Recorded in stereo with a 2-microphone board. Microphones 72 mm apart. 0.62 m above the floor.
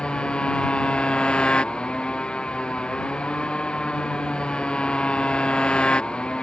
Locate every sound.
0.0 s a motorcycle: 15° left (ahead or behind)